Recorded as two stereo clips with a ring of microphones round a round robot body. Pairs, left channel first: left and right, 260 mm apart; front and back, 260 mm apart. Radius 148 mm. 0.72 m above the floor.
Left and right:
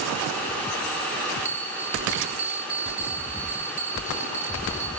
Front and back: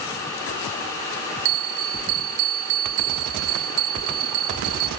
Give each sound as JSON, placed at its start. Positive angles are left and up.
{"t": 1.4, "sound": "a bell", "azimuth_deg": -175, "distance_m": 0.7}